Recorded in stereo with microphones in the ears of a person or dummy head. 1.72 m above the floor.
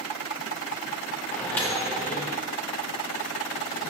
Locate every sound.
1.3 s a microwave: 10° left (ahead or behind), 0.5 m